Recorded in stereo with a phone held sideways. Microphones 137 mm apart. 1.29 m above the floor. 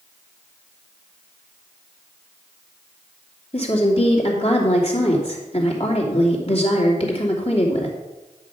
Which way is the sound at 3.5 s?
45° left (ahead or behind).